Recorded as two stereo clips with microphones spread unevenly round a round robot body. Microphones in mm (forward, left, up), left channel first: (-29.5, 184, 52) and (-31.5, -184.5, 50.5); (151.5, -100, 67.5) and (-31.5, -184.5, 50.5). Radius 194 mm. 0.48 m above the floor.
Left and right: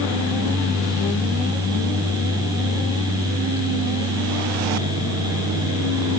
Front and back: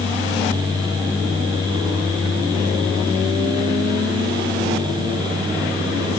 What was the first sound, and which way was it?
Only background noise.